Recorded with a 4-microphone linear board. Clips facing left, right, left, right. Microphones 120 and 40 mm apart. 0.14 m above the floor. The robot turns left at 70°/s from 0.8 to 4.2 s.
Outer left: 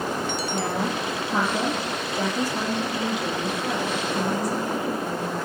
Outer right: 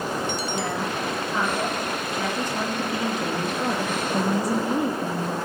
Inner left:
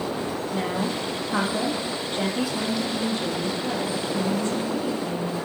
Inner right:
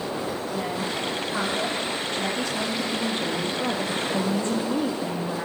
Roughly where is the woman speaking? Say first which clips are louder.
Outer left 1 dB, inner left 4 dB; behind left.